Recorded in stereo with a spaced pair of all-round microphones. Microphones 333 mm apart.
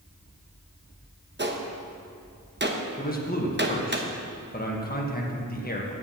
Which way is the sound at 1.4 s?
30° right (ahead or behind).